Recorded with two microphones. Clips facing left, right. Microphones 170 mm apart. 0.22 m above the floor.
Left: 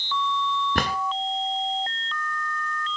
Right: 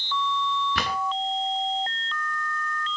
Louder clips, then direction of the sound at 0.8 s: Left 3 dB; 45° left (ahead or behind).